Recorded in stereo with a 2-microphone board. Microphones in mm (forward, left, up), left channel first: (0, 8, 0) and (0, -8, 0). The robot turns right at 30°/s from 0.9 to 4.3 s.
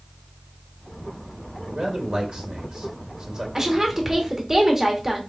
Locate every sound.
1.7 s a man speaking: 50° right (ahead or behind), 1.4 m; by 3.5 s 45° right (ahead or behind), 1.4 m
3.5 s a woman speaking: 35° right (ahead or behind), 1.4 m; by 5.2 s 20° right (ahead or behind), 1.4 m